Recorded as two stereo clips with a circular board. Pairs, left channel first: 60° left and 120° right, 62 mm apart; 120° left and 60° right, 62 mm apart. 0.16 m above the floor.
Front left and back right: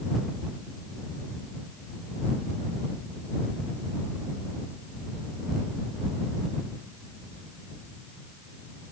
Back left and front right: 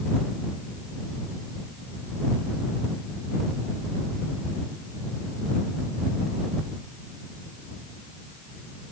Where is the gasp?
I don't hear a gasp.